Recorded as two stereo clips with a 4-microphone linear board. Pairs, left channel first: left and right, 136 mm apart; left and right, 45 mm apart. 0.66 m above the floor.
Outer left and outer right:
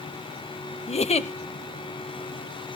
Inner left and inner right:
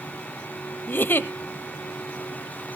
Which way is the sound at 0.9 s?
50° left (ahead or behind).